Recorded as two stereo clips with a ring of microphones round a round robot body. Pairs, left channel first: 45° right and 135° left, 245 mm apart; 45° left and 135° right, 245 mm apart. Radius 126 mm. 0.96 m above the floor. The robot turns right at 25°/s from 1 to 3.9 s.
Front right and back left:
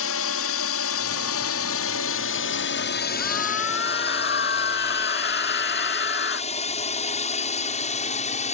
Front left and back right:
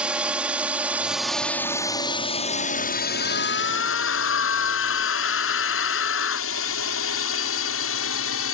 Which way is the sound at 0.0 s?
50° right.